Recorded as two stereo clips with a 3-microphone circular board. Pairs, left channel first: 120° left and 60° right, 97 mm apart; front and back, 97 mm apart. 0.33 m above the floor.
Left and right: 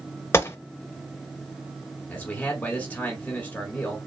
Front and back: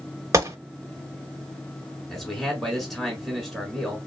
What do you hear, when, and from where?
0.3 s a gunshot: 155° left, 0.5 m
2.1 s a man speaking: 80° left, 1.5 m